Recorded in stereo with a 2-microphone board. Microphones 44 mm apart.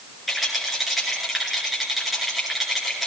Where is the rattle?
Centre (ahead or behind), 6 m.